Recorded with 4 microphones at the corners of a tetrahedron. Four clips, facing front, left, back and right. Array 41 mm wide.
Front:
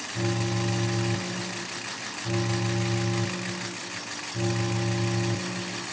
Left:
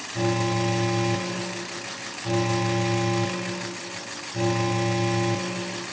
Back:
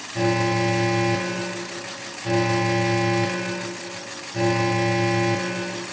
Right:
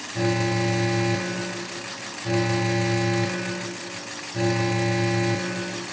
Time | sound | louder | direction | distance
0.1 | an alarm | right 1 dB, back 8 dB | 170° right | ?